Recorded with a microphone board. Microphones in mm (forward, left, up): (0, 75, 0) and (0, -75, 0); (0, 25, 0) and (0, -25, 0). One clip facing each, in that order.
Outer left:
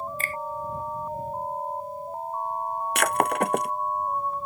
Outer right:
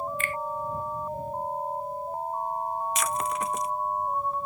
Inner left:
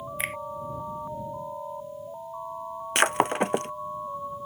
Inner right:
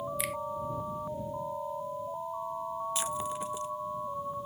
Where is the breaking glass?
70° left (ahead or behind).